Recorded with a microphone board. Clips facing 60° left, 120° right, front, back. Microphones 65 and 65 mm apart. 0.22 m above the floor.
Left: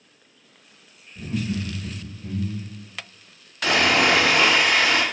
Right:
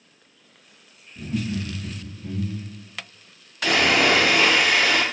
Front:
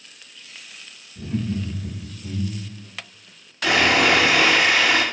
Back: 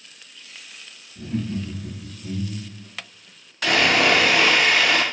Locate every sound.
1.1 s laughter: 80° left, 1.9 m; by 2.9 s 20° left, 1.6 m
3.6 s sawing: 55° left, 2.0 m